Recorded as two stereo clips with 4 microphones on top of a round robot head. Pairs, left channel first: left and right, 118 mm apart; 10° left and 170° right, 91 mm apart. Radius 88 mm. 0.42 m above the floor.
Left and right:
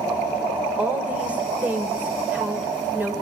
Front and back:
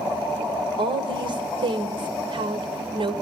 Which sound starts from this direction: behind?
A woman speaking, at 0.8 s.